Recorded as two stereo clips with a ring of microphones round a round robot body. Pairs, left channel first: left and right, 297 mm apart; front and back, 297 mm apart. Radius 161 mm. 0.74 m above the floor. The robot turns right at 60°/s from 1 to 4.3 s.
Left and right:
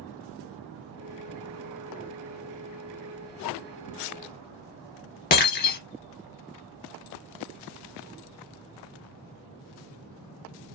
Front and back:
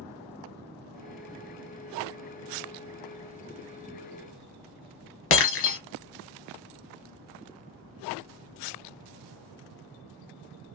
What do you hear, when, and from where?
5.3 s breaking glass: 35° left, 0.8 m